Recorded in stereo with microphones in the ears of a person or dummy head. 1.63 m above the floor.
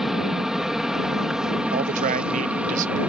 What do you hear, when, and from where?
0.0 s an aircraft: 5° left (ahead or behind); by 3.1 s centre (ahead or behind)
1.7 s a man speaking: 40° right (ahead or behind)